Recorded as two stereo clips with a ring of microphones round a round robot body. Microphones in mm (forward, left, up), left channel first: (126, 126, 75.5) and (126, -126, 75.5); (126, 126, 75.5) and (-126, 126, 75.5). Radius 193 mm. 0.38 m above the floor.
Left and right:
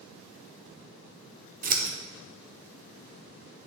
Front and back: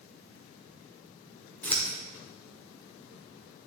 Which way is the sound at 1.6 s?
75° right.